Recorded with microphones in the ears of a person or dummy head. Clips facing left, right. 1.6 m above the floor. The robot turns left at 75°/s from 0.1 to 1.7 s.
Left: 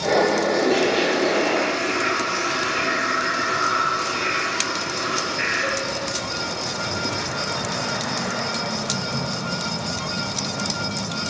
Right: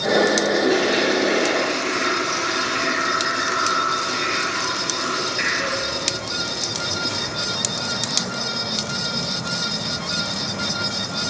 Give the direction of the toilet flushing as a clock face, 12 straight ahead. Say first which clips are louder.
Even; 12 o'clock.